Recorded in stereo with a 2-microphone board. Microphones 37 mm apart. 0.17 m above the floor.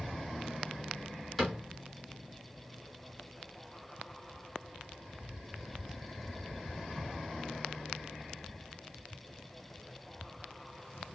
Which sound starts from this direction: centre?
A cupboard door, at 1.4 s.